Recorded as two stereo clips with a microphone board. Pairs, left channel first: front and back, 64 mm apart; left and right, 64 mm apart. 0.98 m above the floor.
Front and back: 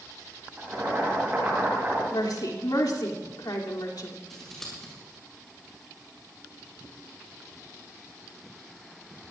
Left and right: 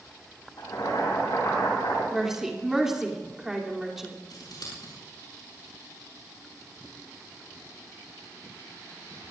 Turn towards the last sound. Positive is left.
turn(degrees=85)